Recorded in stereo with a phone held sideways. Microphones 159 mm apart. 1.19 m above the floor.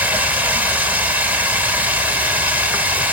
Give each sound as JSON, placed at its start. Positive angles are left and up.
{"t": 0.0, "sound": "running water", "side_deg": -10, "distance_m": 1.7}